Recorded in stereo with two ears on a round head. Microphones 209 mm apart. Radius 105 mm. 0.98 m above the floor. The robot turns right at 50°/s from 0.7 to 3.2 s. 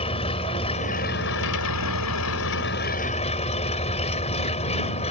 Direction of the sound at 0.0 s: 25° left.